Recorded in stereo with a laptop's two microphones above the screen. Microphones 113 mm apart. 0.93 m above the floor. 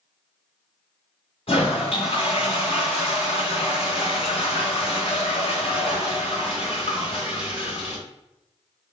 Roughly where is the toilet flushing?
Left.